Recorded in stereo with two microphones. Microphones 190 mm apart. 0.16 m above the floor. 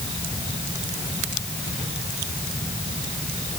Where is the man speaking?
I don't hear a man speaking.